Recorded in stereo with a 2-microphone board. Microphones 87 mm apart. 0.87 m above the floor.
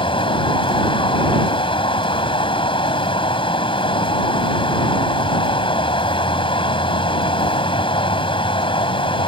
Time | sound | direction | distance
0.0 | running water | 85° left | ?